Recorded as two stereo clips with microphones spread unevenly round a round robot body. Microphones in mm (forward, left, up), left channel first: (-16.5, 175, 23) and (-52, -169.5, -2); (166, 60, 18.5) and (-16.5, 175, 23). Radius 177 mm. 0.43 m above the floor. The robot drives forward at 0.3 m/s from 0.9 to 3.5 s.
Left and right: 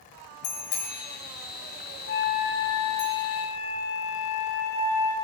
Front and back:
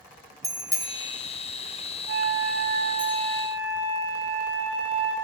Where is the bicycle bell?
70° left, 5.5 m; by 3.1 s 80° left, 5.5 m.